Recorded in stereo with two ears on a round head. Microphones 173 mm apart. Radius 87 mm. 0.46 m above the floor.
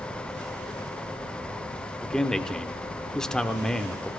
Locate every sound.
2.0 s a man speaking: 5° left (ahead or behind), 0.9 m